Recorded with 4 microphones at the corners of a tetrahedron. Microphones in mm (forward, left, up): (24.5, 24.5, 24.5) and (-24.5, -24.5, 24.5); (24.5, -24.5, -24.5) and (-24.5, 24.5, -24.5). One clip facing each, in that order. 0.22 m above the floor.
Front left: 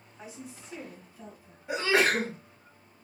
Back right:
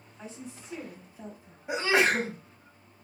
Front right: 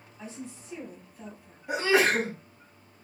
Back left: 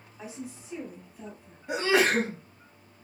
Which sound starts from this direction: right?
A sneeze, at 1.7 s.